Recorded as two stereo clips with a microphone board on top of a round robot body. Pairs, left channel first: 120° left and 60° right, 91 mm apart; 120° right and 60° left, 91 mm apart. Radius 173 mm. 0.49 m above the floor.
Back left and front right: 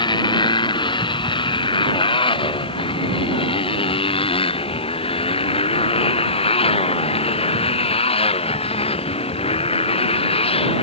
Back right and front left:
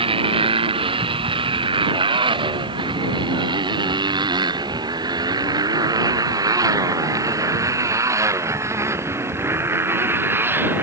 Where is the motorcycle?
85° left; by 10.8 s 130° left.